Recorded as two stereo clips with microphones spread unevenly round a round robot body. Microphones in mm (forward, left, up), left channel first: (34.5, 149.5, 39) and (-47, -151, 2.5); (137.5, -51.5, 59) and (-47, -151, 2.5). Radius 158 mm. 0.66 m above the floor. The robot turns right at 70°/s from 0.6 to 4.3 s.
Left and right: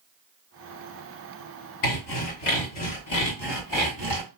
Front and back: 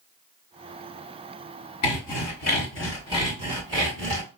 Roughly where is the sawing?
Ahead left.